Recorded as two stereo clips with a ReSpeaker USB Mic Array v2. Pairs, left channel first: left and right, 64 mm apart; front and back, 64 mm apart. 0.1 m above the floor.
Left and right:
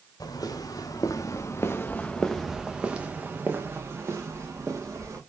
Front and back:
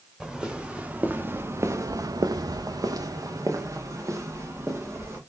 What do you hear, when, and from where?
0.2 s footsteps: 100° left, 1.2 m; by 5.2 s 130° right, 1.9 m